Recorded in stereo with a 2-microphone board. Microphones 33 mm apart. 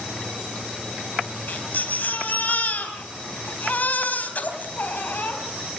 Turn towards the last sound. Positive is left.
turn(degrees=60)  # may be behind; listen again after turning